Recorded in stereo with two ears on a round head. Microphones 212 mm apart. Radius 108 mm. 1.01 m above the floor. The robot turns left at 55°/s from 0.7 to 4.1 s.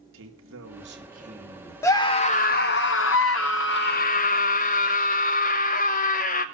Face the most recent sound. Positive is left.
turn(degrees=40)